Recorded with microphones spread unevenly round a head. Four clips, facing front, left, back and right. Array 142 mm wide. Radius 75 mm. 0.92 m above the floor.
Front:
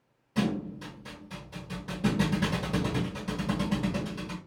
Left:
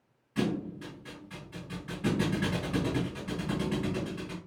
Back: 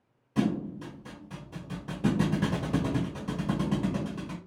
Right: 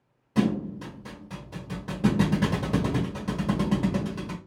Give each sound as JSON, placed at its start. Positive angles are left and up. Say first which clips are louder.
{"t": 0.3, "sound": "a thud", "louder": "right 6 dB, back 1 dB", "azimuth_deg": -95, "distance_m": 1.3}